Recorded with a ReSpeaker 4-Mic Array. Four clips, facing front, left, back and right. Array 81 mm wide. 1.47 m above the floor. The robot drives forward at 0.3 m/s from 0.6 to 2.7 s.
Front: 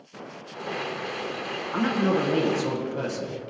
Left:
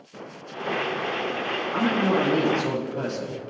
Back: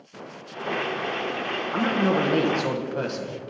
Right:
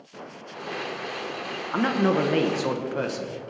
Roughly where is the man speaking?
Right.